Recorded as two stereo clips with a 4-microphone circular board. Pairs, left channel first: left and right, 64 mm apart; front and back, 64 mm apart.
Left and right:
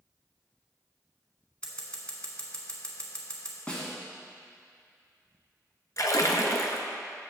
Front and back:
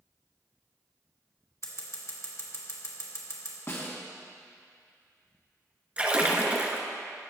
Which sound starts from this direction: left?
A splash, at 6.0 s.